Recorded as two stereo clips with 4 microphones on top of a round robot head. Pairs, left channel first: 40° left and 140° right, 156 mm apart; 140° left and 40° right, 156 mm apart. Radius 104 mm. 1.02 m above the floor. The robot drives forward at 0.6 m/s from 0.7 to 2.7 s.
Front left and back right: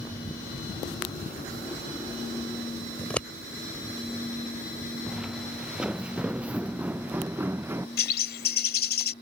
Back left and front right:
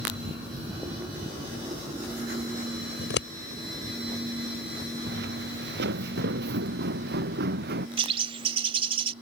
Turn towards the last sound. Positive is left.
turn(degrees=15)